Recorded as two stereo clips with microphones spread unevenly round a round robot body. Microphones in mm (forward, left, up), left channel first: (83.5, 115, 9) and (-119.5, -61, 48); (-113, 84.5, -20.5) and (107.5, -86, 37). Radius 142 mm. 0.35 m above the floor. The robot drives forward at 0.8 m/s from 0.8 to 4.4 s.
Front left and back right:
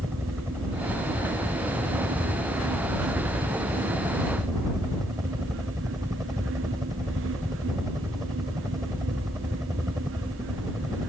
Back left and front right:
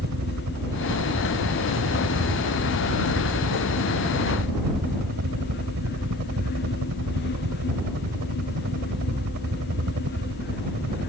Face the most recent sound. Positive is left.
turn(degrees=-60)